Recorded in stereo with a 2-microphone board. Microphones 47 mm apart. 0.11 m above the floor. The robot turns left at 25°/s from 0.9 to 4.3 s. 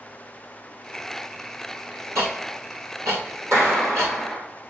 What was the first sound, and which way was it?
Ticking, 70° right (ahead or behind).